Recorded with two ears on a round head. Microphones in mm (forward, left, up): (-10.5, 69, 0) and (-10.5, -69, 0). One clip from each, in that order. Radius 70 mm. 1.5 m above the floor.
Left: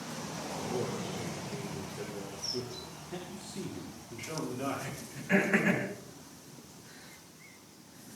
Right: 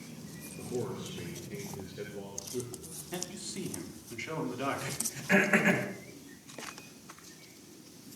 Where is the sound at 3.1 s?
50° right (ahead or behind), 9 m.